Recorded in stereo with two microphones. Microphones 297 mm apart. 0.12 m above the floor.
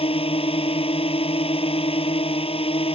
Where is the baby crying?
I don't hear a baby crying.